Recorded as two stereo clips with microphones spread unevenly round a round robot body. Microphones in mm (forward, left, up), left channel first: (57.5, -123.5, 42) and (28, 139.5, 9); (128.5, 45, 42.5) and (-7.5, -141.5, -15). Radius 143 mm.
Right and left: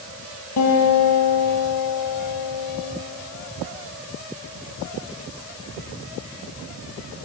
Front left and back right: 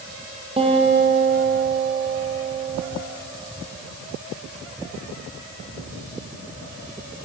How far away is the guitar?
About 6 m.